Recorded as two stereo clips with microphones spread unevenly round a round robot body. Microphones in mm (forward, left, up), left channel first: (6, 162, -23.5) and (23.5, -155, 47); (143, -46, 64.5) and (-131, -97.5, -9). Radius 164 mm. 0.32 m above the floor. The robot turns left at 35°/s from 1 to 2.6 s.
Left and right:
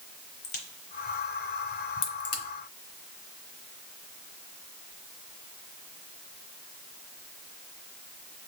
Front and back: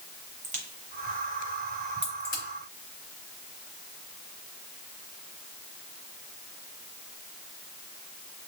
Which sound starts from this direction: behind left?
A crack, at 0.4 s.